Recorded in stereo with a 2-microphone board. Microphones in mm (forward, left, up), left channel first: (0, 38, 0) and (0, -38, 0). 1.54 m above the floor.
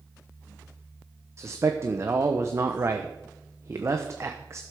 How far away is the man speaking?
About 0.9 m.